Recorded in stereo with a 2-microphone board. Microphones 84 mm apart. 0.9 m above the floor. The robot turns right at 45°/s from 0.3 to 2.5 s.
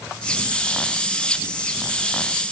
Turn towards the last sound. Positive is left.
No sound to turn to.